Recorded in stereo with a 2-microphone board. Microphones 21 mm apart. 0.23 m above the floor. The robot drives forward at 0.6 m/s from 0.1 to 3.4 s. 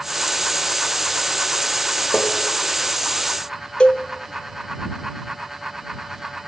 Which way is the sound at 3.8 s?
55° left (ahead or behind).